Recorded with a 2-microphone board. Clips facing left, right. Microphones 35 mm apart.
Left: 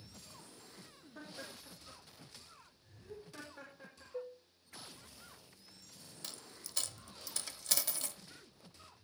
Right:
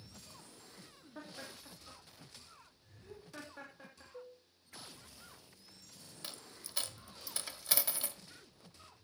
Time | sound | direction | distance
1.1 | laughter | 20° right (ahead or behind) | 3 m
4.1 | dishes clattering | 35° left (ahead or behind) | 0.9 m
6.2 | a dropped coin | 20° right (ahead or behind) | 0.8 m